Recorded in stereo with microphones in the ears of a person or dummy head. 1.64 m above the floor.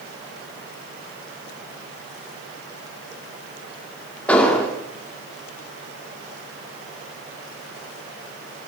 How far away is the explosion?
About 2.0 m.